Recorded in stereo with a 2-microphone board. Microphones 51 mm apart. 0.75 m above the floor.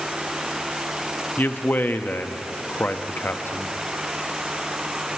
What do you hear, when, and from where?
1.4 s a man speaking: 45° left (ahead or behind), 0.6 m